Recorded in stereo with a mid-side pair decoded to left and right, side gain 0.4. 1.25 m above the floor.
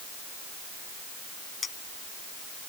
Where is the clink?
40° left.